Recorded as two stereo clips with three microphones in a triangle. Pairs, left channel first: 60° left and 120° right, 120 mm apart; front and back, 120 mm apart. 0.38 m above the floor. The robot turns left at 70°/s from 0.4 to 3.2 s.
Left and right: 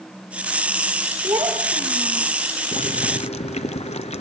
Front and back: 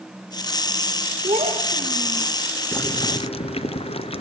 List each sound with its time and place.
1.2 s a child speaking: 175° left, 5 m; by 2.3 s 100° left, 5 m
2.7 s boiling: 70° left, 0.9 m; by 4.2 s 35° left, 0.9 m